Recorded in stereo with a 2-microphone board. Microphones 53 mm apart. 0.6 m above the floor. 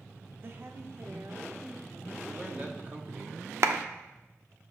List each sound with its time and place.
0.4 s a woman speaking: 45° right (ahead or behind), 0.7 m; by 2.2 s 65° right (ahead or behind), 1.7 m
2.3 s a man speaking: 30° right (ahead or behind), 1.1 m
3.6 s a clap: 55° right (ahead or behind), 0.6 m